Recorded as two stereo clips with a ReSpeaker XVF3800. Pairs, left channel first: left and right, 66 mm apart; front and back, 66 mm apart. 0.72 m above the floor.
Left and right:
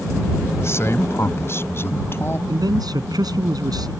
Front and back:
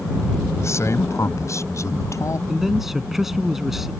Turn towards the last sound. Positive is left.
turn(degrees=-95)